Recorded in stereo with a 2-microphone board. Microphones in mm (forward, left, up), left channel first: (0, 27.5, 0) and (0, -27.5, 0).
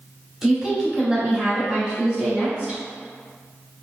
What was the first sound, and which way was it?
A woman speaking, 10° right (ahead or behind).